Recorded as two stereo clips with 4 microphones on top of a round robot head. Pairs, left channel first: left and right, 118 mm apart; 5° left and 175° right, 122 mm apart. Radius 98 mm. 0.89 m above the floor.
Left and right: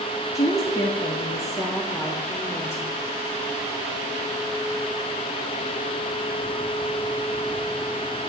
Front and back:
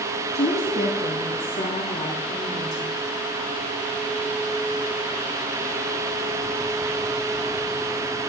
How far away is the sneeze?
No sneeze in this recording.